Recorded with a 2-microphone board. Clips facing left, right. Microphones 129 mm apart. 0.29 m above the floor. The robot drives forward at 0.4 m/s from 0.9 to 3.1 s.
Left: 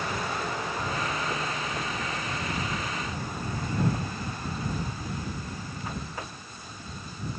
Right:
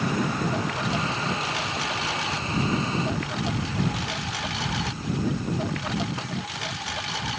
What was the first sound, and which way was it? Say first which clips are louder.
A lawn mower: right 6 dB; 90° right.